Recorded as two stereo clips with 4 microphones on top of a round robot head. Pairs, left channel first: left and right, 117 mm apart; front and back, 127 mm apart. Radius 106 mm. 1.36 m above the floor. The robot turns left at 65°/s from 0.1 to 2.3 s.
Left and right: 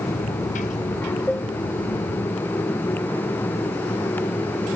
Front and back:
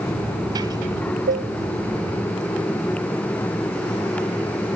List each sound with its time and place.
1.3 s dishes clattering: 175° left; by 1.5 s 160° left